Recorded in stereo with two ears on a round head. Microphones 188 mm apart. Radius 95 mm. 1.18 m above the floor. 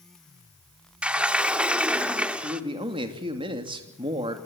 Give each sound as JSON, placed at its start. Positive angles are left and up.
{"t": 1.0, "sound": "a sliding door", "side_deg": -5, "distance_m": 1.0}
{"t": 2.4, "sound": "a man speaking", "side_deg": -25, "distance_m": 2.5}